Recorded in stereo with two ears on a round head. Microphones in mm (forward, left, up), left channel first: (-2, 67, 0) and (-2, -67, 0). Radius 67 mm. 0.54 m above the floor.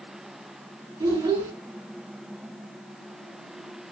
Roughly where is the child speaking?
Right.